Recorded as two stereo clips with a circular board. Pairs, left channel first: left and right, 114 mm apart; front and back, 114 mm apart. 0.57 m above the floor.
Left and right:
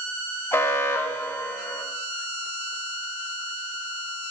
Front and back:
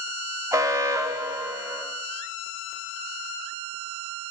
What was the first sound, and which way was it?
An alarm, 140° left.